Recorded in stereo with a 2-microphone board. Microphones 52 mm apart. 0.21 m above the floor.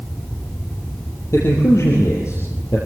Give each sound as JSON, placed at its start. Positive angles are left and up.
{"t": 1.3, "sound": "a man speaking", "side_deg": 65, "distance_m": 4.5}